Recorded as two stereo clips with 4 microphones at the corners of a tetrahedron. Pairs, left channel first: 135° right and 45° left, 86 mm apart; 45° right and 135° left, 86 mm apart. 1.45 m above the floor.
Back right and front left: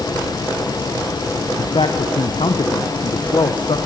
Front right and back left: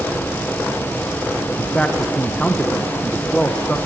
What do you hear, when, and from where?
1.6 s a man speaking: 120° right, 1.5 m